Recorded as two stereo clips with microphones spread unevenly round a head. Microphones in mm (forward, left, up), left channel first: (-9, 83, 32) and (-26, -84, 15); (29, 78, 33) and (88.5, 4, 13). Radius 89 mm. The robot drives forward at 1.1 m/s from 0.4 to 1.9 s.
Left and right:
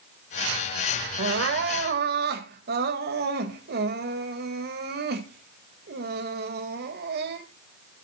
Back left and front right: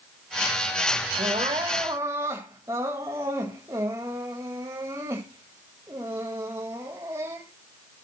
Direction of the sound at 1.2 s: 95° right.